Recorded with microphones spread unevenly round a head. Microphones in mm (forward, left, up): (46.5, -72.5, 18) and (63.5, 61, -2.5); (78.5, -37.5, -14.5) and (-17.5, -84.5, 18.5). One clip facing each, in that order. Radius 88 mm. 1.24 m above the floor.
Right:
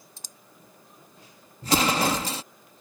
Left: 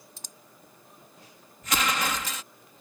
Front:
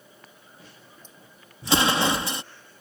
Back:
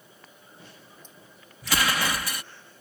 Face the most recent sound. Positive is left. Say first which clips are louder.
# right 6 dB, front 5 dB
turn(degrees=-40)